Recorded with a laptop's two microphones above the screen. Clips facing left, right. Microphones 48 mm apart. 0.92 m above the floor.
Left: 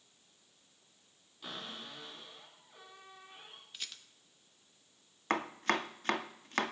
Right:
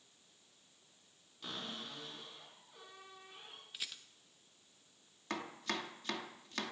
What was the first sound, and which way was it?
A cupboard door, 10° left (ahead or behind).